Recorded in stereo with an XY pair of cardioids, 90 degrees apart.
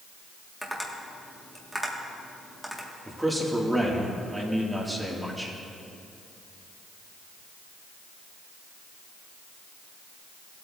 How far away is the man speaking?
About 2.0 m.